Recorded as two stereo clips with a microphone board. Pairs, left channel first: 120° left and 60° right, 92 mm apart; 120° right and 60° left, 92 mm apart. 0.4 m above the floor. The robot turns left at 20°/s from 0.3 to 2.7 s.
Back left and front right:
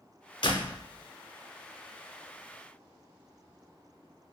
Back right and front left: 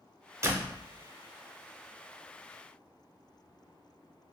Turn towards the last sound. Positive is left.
turn(degrees=65)